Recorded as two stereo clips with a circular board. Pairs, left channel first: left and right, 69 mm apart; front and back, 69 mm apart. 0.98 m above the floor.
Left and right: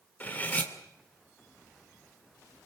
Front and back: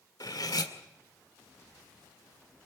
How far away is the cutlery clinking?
About 2.0 m.